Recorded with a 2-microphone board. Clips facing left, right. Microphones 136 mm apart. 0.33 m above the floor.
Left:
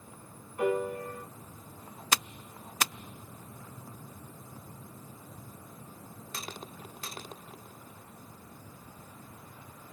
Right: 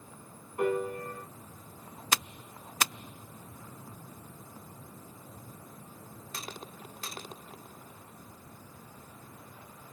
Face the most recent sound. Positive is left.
turn(degrees=-45)  # may be behind; listen again after turning